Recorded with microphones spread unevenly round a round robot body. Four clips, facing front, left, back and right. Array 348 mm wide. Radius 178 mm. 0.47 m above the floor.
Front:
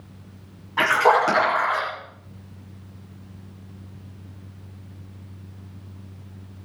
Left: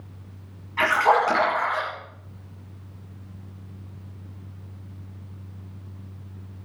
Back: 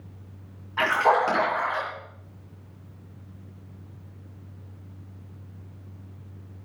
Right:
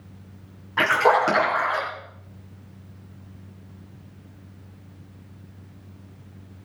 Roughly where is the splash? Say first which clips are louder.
Right 1 dB, front 3 dB; ahead right.